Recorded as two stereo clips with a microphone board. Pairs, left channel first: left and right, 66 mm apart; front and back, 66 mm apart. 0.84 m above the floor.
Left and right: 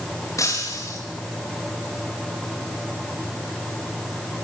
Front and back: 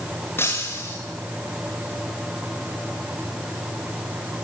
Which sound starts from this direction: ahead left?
Breaking glass, at 0.4 s.